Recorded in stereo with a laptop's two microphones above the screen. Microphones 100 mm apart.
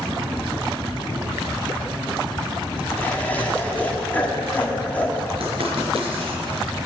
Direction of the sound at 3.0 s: 15° left (ahead or behind).